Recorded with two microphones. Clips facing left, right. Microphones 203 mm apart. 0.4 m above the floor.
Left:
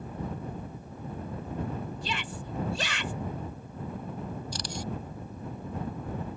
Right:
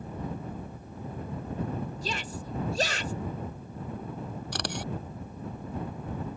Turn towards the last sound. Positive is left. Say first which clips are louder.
# right 2 dB
turn(degrees=-70)  # may be behind; listen again after turning